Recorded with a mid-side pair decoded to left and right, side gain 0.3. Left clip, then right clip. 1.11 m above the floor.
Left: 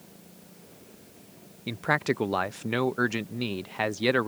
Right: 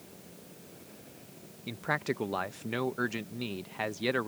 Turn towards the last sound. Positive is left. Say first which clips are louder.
# left 6 dB
turn(degrees=60)